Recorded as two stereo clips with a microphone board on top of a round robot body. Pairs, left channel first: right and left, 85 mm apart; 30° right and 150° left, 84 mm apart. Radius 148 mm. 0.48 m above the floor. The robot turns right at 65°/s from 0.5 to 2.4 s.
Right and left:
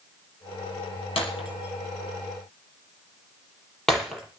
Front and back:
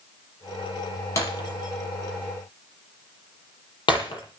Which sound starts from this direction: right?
Breaking glass, at 1.2 s.